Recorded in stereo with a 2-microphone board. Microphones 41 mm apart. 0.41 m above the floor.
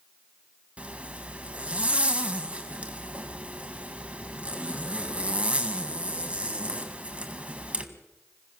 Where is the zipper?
30° right (ahead or behind), 1.9 m.